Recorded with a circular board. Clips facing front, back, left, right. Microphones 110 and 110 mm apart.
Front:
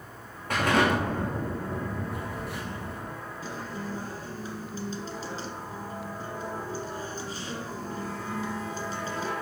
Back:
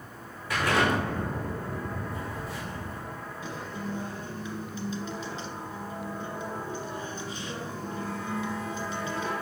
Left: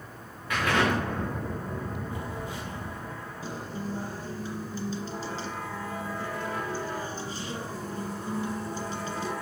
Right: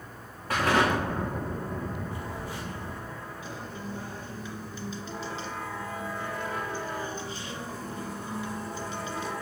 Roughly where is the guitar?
Ahead left.